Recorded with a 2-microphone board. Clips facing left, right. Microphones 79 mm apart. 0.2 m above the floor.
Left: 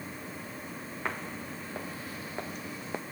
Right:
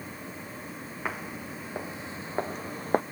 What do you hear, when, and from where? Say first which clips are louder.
1.1 s footsteps: right 1 dB; 5° right (ahead or behind); by 3.0 s 50° right (ahead or behind)